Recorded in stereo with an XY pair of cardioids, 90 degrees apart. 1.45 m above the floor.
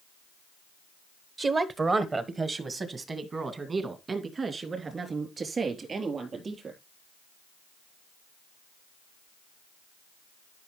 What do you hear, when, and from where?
1.4 s a woman speaking: 40° right, 1.0 m; by 6.8 s 45° right, 4 m